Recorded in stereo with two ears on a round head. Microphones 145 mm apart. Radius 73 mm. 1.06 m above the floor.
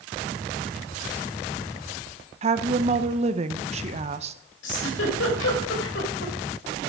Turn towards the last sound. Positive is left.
turn(degrees=75)  # may be behind; listen again after turning